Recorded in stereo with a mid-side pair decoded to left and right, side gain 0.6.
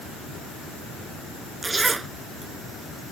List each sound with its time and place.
1.6 s a zipper: 20° right